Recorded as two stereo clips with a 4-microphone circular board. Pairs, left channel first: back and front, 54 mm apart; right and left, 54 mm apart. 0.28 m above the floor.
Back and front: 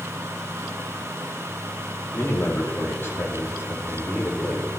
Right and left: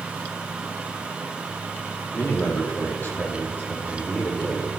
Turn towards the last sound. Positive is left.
turn(degrees=-135)